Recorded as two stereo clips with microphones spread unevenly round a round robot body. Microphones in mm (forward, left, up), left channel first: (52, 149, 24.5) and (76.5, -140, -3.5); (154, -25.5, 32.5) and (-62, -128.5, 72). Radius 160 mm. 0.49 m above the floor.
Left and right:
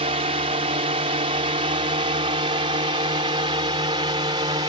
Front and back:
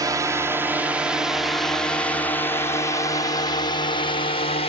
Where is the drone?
75° right; by 4.7 s 20° right.